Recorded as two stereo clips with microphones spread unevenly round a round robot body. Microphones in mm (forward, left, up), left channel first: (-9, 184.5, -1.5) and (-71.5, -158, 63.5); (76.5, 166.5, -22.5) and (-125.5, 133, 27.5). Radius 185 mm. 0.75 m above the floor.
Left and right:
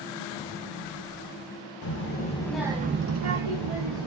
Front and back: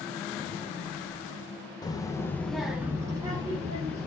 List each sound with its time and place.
1.8 s a child speaking: 65° left, 0.7 m; by 4.1 s 100° right, 0.9 m